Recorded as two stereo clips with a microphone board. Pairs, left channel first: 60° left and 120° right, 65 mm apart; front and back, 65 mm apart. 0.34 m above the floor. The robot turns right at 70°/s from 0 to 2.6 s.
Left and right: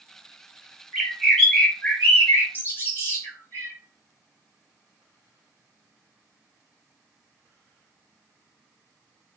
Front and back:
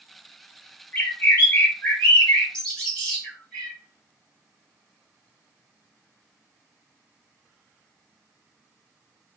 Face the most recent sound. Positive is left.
turn(degrees=75)